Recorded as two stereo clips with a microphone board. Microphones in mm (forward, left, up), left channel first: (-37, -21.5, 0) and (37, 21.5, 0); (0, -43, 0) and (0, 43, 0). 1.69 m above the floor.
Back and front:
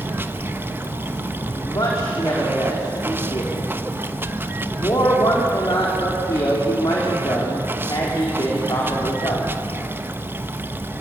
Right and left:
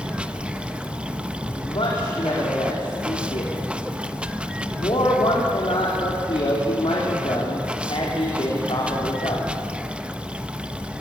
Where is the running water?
30° left, 1.0 m.